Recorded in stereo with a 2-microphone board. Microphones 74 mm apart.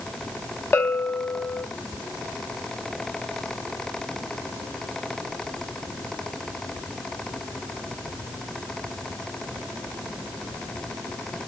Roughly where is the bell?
Left.